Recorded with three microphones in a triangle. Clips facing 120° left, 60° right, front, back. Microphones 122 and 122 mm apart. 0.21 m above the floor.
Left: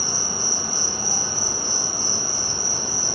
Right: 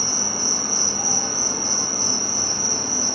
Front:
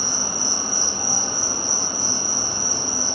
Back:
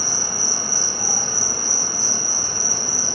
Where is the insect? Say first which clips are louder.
Right 2 dB, front 1 dB; 65° right, 0.9 m.